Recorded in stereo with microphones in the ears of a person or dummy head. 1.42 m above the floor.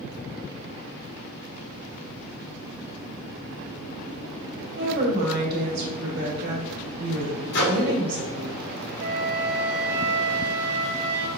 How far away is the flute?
About 0.6 m.